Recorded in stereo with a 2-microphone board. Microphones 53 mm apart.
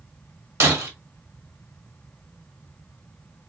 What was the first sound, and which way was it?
Breaking glass, 60° right (ahead or behind).